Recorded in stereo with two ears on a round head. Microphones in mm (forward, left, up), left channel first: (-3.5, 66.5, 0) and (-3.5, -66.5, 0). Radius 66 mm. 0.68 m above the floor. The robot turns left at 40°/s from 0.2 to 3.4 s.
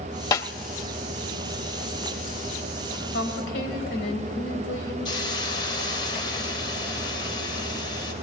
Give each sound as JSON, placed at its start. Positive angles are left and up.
{"t": 0.3, "sound": "a snare drum", "side_deg": 25, "distance_m": 0.6}
{"t": 3.1, "sound": "a woman speaking", "side_deg": 75, "distance_m": 3.0}
{"t": 5.0, "sound": "a hiss", "side_deg": 30, "distance_m": 3.0}